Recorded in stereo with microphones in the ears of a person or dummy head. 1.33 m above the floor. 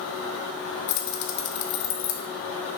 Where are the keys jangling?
55° left (ahead or behind), 0.8 m.